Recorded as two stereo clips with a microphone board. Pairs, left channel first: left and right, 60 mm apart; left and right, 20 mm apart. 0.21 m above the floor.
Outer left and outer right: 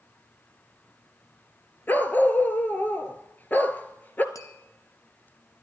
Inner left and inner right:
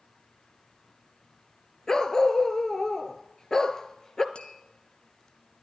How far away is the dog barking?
About 0.9 m.